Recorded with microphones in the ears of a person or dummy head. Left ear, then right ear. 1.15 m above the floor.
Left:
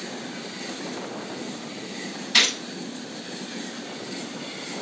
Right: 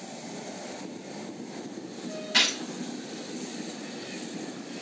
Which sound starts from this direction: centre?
A gunshot, at 2.3 s.